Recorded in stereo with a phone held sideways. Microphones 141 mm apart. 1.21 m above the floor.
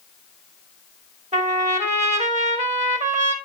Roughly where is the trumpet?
Right.